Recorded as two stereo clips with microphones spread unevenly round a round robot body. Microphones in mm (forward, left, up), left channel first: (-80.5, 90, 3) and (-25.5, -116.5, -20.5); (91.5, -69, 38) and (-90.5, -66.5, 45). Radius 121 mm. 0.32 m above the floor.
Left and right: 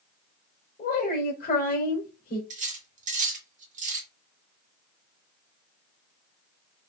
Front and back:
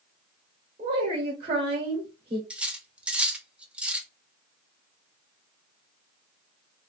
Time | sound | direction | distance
0.8 | a woman speaking | 135° left | 1.1 m
2.5 | cutlery clinking | 95° right | 0.9 m